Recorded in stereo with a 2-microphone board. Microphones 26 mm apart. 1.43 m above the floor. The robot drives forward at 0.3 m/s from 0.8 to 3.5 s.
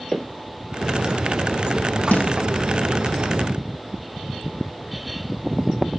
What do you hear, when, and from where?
0.1 s footsteps: 20° left (ahead or behind), 1.5 m
2.1 s a snare drum: 80° left, 0.7 m; by 2.4 s 75° left (ahead or behind), 0.8 m